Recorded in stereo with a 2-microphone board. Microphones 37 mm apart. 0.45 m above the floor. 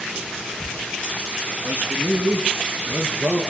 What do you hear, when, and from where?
1.6 s a man speaking: 75° right (ahead or behind), 6 m; by 3.4 s 65° right (ahead or behind), 7.5 m